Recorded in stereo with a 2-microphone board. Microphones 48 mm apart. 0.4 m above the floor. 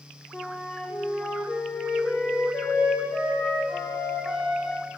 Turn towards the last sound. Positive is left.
turn(degrees=30)  # may be behind; listen again after turning